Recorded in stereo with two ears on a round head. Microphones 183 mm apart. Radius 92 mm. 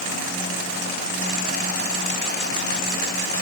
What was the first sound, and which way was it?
Only background noise.